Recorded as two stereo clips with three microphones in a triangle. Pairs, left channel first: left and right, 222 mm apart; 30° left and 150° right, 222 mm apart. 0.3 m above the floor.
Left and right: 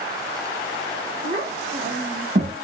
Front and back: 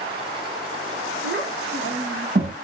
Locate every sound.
1.2 s a child speaking: 140° right, 1.8 m; by 2.5 s 115° right, 1.2 m